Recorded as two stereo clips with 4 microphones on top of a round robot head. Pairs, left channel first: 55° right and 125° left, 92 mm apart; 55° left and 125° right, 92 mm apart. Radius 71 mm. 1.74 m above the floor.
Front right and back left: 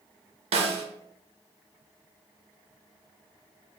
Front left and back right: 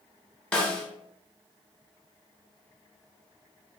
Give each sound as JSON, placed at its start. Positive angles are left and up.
{"t": 0.5, "sound": "a snare drum", "azimuth_deg": 135, "distance_m": 0.5}